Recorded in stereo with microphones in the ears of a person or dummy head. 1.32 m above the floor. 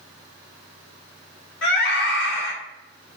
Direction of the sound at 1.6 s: 65° left (ahead or behind).